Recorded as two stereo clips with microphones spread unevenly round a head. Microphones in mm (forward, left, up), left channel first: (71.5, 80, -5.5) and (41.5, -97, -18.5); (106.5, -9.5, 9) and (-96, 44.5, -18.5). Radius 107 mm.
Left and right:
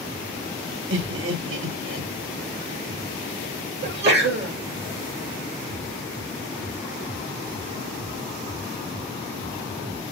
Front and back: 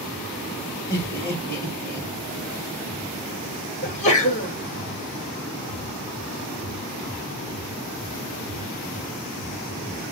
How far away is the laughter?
About 2 m.